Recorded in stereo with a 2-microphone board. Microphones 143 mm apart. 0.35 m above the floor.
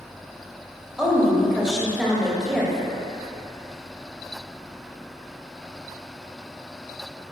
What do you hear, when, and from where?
1.0 s a woman speaking: 5° right (ahead or behind), 1.6 m